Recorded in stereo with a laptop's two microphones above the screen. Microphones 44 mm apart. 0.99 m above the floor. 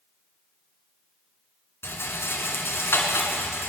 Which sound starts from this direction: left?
A rattle, at 1.8 s.